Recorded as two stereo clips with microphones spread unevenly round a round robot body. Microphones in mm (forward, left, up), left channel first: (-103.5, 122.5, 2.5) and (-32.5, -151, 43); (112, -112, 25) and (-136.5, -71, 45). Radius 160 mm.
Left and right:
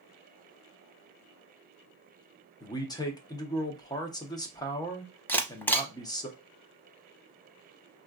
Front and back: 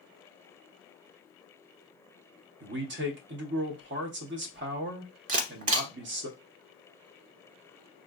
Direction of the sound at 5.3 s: 170° right.